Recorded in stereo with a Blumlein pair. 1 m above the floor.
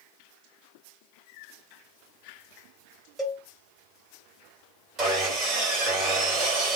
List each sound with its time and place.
3.2 s a cowbell: 10° right, 1.5 m
5.0 s sawing: 25° right, 2 m